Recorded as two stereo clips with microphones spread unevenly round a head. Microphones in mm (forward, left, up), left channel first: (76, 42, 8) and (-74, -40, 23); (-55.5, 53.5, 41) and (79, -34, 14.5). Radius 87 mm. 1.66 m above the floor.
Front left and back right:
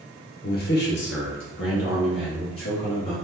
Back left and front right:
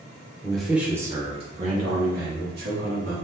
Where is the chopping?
No chopping in this recording.